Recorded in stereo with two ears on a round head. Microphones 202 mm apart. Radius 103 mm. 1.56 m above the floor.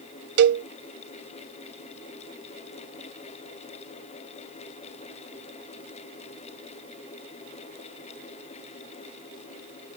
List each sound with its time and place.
0.4 s a cowbell: 55° right (ahead or behind)